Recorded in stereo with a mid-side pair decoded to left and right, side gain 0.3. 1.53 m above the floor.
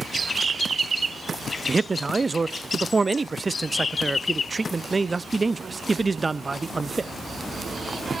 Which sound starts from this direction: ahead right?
A man speaking, at 1.7 s.